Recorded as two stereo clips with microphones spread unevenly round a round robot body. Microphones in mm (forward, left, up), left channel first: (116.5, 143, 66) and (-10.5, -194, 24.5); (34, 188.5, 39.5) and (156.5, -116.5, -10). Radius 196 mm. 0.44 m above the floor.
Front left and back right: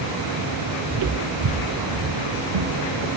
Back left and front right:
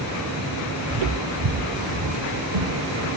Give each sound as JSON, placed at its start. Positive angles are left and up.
{"t": 0.9, "sound": "footsteps", "azimuth_deg": -60, "distance_m": 0.8}